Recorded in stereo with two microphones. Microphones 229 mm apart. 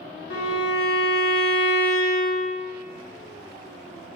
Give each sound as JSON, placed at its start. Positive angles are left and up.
{"t": 0.3, "sound": "a violin", "side_deg": 65, "distance_m": 0.8}